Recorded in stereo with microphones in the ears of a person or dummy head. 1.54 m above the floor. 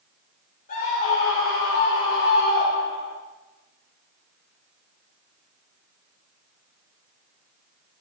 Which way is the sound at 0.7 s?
45° left (ahead or behind).